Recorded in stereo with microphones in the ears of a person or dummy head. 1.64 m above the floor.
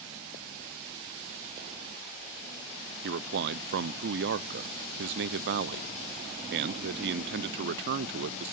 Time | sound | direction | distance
3.0 | a man speaking | 60° right (ahead or behind) | 0.6 m